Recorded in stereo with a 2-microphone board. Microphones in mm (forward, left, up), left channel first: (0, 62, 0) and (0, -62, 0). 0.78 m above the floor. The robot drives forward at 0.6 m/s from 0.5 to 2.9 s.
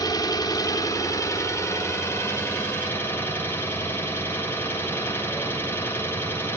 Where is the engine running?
30° left (ahead or behind), 1.9 m; by 6.6 s 20° left (ahead or behind), 3 m.